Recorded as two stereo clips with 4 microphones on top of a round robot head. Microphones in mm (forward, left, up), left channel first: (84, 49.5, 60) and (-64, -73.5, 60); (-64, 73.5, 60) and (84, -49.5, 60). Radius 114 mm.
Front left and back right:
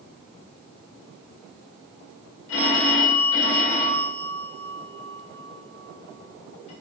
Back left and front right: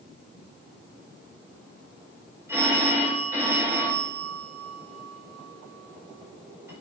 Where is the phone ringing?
40° left, 1.4 m.